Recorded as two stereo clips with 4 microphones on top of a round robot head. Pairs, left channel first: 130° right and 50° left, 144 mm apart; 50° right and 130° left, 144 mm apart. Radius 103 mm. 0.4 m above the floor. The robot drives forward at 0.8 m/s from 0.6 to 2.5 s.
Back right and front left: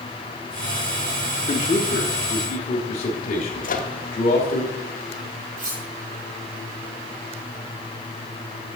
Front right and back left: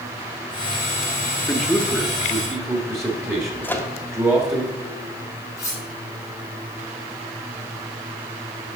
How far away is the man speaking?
About 0.9 m.